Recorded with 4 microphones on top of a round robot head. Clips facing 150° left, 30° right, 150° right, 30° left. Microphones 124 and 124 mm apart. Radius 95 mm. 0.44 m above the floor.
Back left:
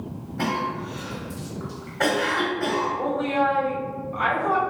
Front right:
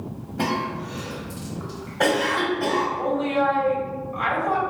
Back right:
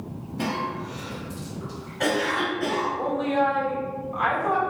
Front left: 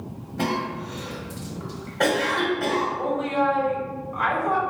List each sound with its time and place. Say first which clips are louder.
0.4 s a cough: front right 1 dB, front left 2 dB; 40° left, 1.4 m
3.0 s a woman speaking: even, even; 140° left, 1.8 m